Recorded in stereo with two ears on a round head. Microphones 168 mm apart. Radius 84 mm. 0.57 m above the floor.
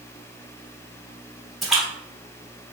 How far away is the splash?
About 0.9 m.